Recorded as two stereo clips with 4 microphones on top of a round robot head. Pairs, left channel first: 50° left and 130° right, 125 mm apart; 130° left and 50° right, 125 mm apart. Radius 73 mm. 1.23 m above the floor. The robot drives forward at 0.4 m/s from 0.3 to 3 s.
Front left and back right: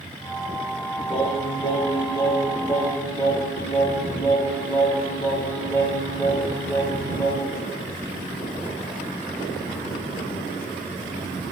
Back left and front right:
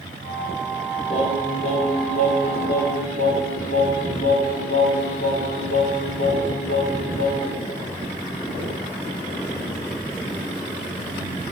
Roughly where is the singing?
Left.